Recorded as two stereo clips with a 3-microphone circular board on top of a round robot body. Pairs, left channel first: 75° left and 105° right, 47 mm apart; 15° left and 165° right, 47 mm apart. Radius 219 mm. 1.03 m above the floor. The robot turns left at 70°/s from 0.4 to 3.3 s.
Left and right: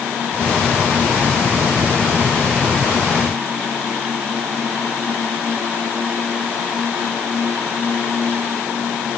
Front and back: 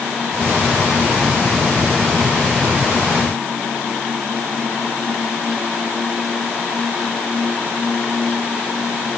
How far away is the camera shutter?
I don't hear a camera shutter.